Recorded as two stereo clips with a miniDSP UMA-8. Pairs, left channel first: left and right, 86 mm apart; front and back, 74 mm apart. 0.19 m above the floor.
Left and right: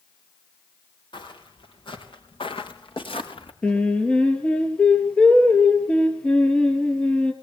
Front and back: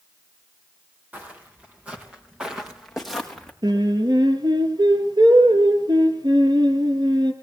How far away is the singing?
About 3 m.